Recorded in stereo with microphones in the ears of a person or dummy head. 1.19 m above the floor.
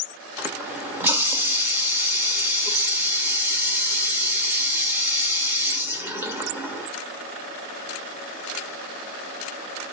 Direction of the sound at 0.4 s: 10° right (ahead or behind).